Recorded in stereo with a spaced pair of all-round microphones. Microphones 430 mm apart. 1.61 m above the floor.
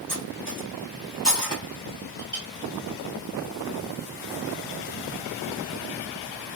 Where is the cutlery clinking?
65° left (ahead or behind), 1.8 m.